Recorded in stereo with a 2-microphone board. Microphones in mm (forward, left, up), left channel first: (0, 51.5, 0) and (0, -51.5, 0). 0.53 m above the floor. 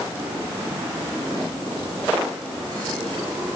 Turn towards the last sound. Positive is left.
No sound to turn to.